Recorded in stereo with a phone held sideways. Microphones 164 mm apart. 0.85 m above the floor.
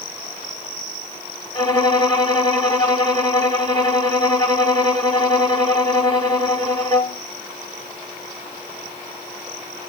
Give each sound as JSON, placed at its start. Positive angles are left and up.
{"t": 1.6, "sound": "a violin", "side_deg": 30, "distance_m": 3.0}